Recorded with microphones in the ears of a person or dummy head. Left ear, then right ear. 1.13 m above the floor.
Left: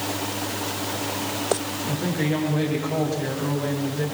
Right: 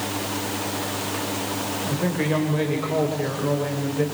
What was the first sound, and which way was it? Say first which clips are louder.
A woman speaking: right 1 dB; 50° right (ahead or behind).